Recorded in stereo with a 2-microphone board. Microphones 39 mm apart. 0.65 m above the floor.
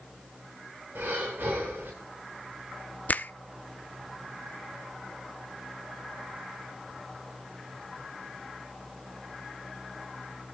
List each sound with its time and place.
0.9 s breathing: 75° right (ahead or behind), 8.5 m
3.1 s a finger snap: 45° left (ahead or behind), 0.7 m